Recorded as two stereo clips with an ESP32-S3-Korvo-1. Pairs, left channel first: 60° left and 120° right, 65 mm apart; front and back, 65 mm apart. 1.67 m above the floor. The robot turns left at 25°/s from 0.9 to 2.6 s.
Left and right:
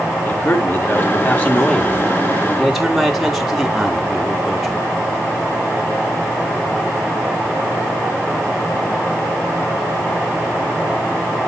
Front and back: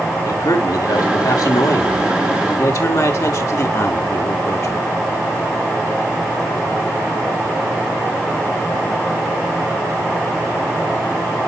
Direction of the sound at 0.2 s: 10° left.